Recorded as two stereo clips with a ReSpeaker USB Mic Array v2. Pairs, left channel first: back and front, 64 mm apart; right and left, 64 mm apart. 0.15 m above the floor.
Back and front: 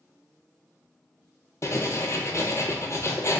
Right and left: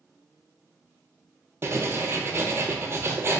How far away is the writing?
About 0.8 m.